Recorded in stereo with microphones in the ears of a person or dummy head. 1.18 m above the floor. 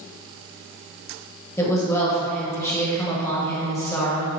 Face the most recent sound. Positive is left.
turn(degrees=15)  # may be behind; listen again after turning